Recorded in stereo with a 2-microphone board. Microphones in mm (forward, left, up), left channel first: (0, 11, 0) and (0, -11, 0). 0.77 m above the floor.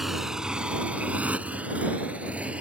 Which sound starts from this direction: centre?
A motorcycle, at 0.0 s.